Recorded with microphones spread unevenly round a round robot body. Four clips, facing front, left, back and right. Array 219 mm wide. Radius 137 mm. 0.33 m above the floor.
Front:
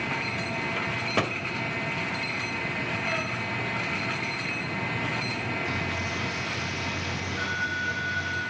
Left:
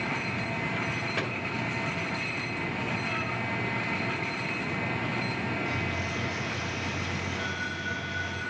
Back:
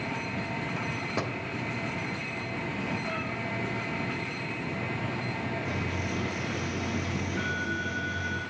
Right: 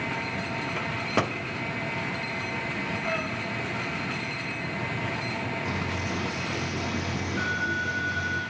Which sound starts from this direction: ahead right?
A microwave, at 0.8 s.